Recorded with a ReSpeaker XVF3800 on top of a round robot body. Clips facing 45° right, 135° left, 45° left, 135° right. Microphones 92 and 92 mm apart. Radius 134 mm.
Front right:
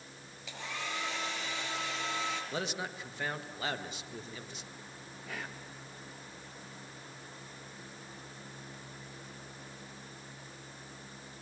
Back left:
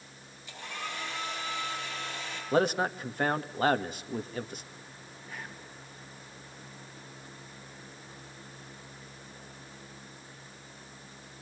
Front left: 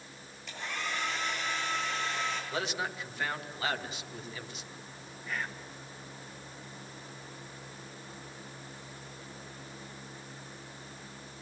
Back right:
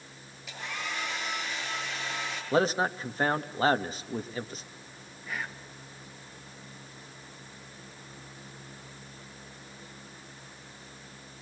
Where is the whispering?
50° right, 3 m.